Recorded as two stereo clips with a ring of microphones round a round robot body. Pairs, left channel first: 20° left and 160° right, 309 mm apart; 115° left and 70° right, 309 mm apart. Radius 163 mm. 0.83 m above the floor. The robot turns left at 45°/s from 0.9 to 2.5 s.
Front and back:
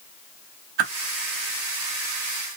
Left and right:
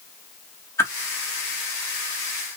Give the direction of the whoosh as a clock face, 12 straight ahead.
6 o'clock.